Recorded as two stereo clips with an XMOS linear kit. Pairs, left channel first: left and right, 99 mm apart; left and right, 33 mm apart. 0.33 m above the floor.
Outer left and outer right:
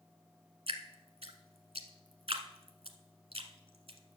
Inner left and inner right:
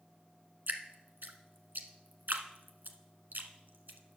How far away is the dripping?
About 1.3 m.